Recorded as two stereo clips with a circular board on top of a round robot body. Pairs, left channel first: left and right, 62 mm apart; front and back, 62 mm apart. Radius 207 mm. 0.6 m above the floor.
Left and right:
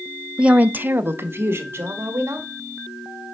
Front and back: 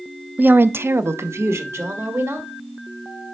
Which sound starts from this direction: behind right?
A woman speaking, at 0.4 s.